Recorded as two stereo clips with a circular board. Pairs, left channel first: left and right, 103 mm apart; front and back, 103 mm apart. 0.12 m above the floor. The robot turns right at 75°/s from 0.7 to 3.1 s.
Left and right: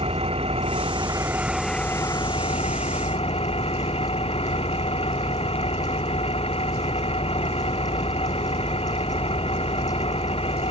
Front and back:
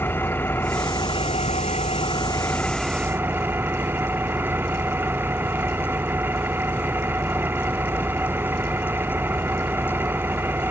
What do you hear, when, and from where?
0.0 s an engine running: 70° right; by 10.7 s 110° left